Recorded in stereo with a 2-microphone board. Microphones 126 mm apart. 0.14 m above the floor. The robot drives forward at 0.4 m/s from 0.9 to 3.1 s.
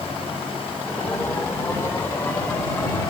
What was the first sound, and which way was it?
Only background noise.